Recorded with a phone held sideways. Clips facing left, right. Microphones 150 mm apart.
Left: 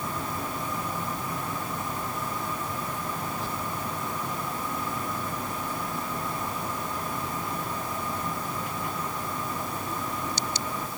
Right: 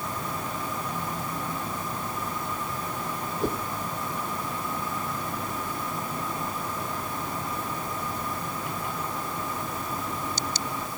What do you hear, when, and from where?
3.4 s a whoosh: 55° right (ahead or behind)